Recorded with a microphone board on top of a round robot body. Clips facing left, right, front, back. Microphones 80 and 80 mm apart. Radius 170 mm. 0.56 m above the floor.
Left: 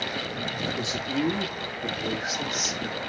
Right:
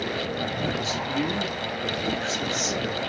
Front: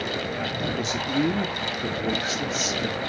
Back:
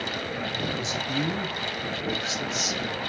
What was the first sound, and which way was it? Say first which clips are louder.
A man speaking: right 1 dB, front 4 dB; 25° left.